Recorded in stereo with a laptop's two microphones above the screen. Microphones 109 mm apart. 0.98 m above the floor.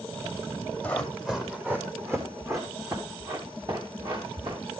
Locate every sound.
0.8 s running footsteps: 10° left (ahead or behind), 1.8 m; by 4.6 s 40° right (ahead or behind), 5.5 m